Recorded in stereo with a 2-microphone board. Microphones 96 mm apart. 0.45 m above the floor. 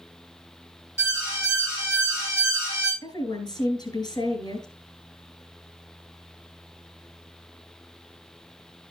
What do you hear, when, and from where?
1.0 s an alarm: 30° left (ahead or behind), 7.5 m
3.0 s a woman speaking: 50° left (ahead or behind), 3 m